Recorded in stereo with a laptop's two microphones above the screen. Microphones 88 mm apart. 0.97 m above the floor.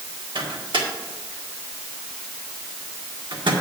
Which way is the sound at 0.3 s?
70° right (ahead or behind).